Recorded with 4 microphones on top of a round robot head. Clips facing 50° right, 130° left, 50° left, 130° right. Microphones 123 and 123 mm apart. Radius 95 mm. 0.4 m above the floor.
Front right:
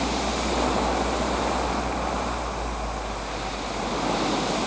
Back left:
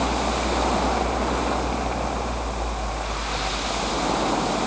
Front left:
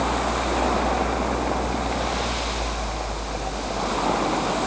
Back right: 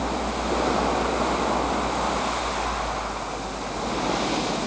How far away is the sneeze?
No sneeze in this recording.